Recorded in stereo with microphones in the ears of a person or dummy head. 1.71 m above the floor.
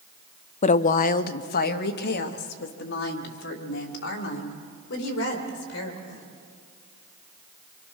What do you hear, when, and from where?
0.6 s a woman speaking: 30° left (ahead or behind), 0.5 m; by 6.2 s 55° left (ahead or behind), 4 m